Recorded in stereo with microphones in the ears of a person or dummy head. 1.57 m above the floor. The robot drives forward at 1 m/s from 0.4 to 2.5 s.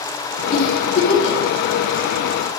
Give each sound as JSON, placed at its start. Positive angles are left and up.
{"t": 0.5, "sound": "a giggle", "side_deg": 50, "distance_m": 2.5}